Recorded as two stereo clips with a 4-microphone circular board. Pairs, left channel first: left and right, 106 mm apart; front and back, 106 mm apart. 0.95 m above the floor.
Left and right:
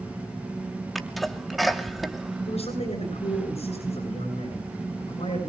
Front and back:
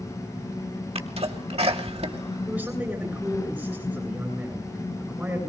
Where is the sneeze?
Straight behind, 2.5 m.